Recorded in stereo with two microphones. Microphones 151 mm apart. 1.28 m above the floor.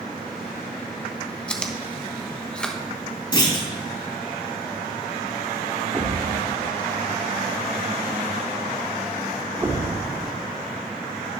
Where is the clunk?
30° left (ahead or behind), 3 m.